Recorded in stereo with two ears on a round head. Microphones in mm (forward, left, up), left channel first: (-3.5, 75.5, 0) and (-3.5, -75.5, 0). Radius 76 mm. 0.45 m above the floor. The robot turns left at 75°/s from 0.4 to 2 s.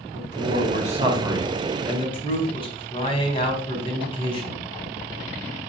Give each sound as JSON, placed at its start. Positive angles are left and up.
{"t": 0.1, "sound": "a man speaking", "azimuth_deg": -95, "distance_m": 4.5}